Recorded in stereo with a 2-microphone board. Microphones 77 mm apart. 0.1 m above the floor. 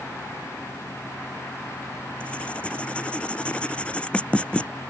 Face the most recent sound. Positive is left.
turn(degrees=15)  # may be behind; listen again after turning